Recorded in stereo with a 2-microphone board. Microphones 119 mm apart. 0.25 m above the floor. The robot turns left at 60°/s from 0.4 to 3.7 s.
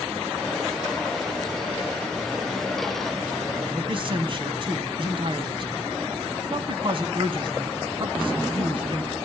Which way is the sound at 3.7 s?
45° right (ahead or behind).